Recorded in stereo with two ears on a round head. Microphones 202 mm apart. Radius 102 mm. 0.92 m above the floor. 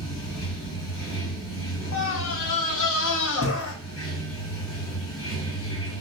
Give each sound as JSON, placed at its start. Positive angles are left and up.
{"t": 0.0, "sound": "running water", "side_deg": 70, "distance_m": 2.5}
{"t": 1.9, "sound": "a scream", "side_deg": 65, "distance_m": 0.8}